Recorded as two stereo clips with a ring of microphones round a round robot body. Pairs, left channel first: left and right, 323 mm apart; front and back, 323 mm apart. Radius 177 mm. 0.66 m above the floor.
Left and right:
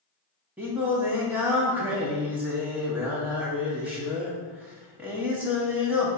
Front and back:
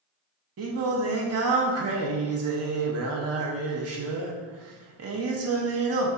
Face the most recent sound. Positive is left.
turn(degrees=-175)